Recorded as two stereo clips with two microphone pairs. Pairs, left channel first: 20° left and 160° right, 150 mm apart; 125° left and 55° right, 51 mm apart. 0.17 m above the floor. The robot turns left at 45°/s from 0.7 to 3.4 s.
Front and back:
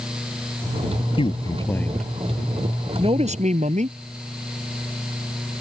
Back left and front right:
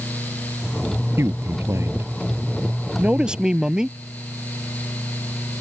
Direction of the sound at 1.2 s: 30° right.